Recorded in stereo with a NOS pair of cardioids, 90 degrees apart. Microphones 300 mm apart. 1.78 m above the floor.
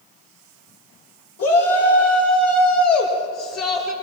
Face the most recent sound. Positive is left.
turn(degrees=55)